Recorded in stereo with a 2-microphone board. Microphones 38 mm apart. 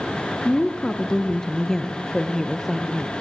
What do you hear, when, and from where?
0.5 s a woman speaking: 25° left (ahead or behind), 1.7 m; by 3.1 s 5° right (ahead or behind), 3 m